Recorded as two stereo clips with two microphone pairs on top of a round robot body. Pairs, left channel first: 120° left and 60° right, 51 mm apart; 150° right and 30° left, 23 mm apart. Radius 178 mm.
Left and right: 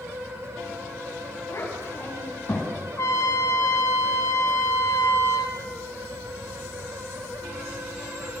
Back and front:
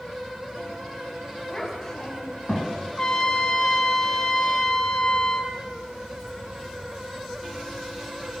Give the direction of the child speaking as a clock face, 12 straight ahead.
7 o'clock.